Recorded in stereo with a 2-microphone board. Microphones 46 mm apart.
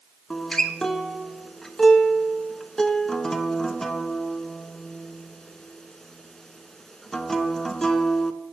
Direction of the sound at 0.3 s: 10° left (ahead or behind).